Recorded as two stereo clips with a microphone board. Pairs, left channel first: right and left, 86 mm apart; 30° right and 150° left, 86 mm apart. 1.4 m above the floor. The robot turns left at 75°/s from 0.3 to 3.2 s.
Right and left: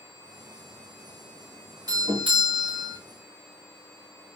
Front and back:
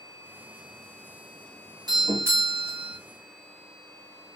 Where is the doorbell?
120° left, 1.8 m; by 3.0 s 40° left, 1.8 m.